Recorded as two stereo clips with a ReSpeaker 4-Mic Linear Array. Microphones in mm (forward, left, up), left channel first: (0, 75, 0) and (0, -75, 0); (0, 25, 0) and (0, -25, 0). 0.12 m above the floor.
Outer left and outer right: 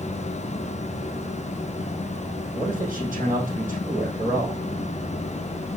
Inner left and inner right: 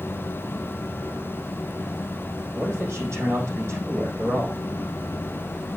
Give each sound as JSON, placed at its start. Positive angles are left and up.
{"t": 2.5, "sound": "a man speaking", "side_deg": -65, "distance_m": 4.5}